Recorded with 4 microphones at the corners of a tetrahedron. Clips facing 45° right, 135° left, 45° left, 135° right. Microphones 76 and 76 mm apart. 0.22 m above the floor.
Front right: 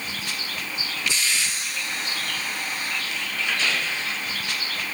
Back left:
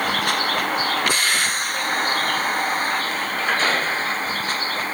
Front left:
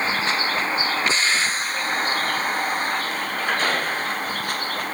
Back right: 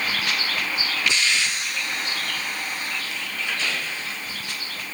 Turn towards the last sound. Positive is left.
turn(degrees=85)